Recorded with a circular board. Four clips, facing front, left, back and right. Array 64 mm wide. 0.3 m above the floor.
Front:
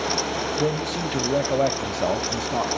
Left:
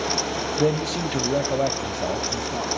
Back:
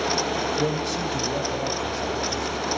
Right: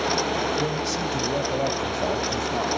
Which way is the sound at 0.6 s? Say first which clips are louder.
Left 3 dB, front 1 dB; 85° left.